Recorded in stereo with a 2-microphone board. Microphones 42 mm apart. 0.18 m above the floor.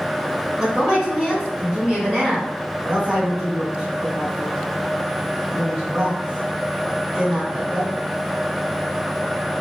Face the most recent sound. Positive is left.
turn(degrees=-20)  # may be behind; listen again after turning